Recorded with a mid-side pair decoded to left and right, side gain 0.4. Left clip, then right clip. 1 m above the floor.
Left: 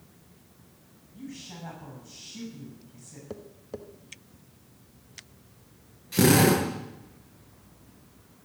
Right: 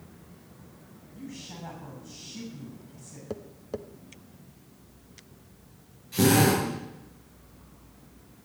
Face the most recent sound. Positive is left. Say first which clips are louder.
# left 1 dB
turn(degrees=50)